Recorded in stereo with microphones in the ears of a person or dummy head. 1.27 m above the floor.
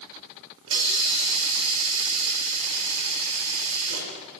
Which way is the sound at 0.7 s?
75° right (ahead or behind).